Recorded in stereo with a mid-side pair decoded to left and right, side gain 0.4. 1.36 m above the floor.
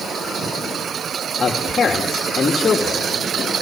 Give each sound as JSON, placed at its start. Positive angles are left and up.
{"t": 1.4, "sound": "a man speaking", "azimuth_deg": 50, "distance_m": 2.5}